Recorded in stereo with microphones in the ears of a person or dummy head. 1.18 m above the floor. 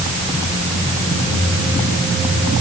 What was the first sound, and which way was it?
Only background noise.